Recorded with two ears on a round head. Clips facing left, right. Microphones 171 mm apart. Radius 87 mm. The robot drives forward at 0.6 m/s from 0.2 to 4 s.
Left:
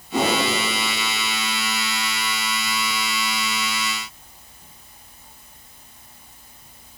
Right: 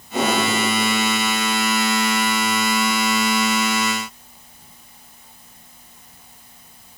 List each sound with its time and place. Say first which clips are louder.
0.1 s a whoosh: right 1 dB; 70° left (ahead or behind), 4.5 m